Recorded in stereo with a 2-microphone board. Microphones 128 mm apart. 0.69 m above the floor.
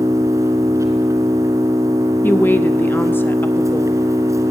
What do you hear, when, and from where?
0.0 s an engine running: 25° right (ahead or behind), 2.5 m
2.2 s a woman speaking: 15° left (ahead or behind), 0.6 m